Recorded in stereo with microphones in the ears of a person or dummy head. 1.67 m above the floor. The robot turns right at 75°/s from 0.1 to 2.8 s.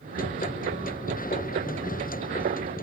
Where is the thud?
I don't hear a thud.